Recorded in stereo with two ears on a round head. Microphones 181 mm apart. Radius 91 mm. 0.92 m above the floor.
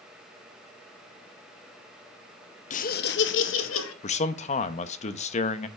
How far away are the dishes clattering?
No dishes clattering in this recording.